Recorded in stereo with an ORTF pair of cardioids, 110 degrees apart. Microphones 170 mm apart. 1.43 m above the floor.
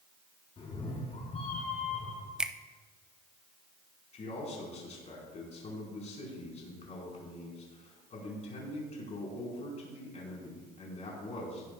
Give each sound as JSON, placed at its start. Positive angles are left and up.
{"t": 0.6, "sound": "a cat meowing", "azimuth_deg": 35, "distance_m": 4.5}
{"t": 2.4, "sound": "a finger snap", "azimuth_deg": -5, "distance_m": 0.6}
{"t": 4.1, "sound": "a man speaking", "azimuth_deg": 40, "distance_m": 5.0}